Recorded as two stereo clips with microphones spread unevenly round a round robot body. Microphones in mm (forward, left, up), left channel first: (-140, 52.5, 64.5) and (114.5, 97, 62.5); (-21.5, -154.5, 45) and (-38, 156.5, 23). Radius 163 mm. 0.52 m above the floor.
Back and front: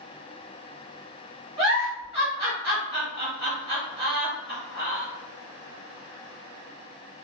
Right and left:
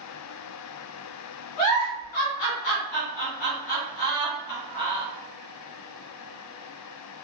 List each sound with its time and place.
1.6 s a giggle: 60° right, 1.5 m